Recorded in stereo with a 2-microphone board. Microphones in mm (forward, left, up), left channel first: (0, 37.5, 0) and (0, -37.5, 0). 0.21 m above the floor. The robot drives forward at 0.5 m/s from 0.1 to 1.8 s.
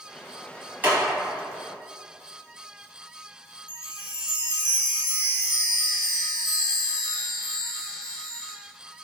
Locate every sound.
0.8 s a clap: 25° right (ahead or behind), 1.4 m
3.7 s a chime: 35° left (ahead or behind), 0.9 m